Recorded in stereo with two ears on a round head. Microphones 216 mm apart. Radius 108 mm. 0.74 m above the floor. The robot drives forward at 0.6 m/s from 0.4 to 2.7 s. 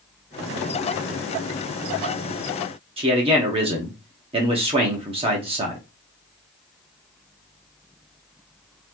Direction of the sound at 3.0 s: 25° right (ahead or behind).